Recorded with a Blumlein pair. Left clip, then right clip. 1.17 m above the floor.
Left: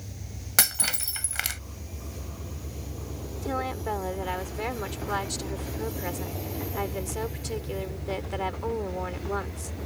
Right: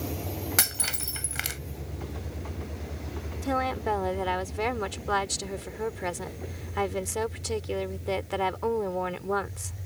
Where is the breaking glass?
5° left.